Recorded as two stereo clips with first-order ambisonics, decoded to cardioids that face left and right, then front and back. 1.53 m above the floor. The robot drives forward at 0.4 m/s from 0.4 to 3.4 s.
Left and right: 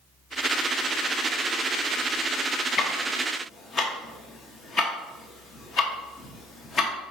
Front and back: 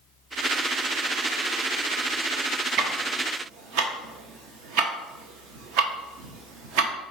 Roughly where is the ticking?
Behind left.